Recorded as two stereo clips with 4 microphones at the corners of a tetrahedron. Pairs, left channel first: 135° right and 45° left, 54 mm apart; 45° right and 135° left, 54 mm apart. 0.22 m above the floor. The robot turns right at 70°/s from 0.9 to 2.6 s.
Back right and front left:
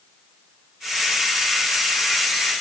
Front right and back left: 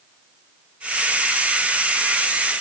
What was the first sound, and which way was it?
Only background noise.